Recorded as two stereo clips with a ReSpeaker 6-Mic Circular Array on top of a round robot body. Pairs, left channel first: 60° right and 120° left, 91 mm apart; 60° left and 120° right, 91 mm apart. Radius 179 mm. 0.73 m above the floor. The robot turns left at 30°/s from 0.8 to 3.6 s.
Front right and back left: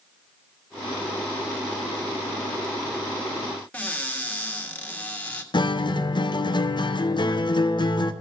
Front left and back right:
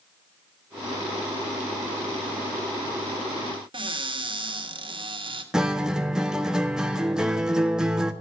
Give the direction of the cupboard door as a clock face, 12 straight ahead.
4 o'clock.